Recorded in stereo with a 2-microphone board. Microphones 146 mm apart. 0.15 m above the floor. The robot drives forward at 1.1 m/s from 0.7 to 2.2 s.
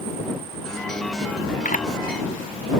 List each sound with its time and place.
1.6 s a camera shutter: 65° left (ahead or behind)